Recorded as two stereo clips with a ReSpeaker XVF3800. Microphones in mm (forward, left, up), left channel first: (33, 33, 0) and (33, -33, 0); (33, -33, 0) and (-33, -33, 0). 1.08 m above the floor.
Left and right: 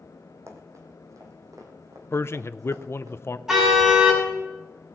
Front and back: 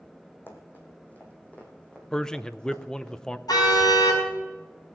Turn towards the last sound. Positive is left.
turn(degrees=-10)